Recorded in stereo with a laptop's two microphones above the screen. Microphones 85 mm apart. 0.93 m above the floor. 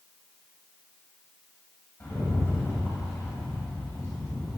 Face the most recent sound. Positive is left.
turn(degrees=25)  # may be behind; listen again after turning